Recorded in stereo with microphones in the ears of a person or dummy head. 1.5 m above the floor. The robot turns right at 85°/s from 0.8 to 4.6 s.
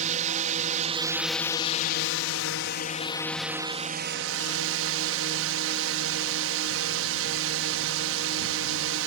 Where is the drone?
40° right; by 9.1 s 80° right.